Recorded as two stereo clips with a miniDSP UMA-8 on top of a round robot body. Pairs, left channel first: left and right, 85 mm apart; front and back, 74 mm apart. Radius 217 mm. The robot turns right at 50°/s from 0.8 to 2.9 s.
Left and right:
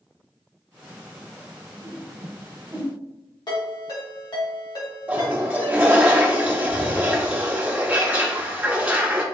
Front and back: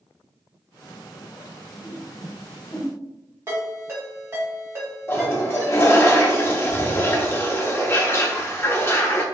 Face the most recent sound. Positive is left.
turn(degrees=-30)